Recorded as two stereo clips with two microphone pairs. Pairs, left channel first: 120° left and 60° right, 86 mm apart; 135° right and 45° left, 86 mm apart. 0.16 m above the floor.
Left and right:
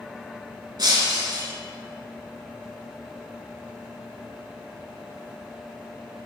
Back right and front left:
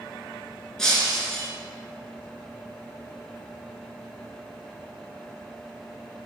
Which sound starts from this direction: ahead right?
Breaking glass, at 0.8 s.